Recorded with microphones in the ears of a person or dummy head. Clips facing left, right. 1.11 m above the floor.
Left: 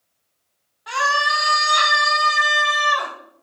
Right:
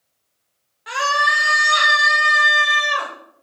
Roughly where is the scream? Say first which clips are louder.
Right 1 dB; centre.